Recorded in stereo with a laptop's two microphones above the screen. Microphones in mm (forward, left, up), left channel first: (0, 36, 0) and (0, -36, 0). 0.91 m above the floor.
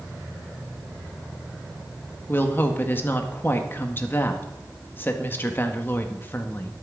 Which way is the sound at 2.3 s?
30° left (ahead or behind).